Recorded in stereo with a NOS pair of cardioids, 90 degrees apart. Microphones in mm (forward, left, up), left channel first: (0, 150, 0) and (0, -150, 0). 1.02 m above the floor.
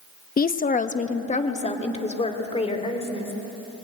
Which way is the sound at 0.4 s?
30° left.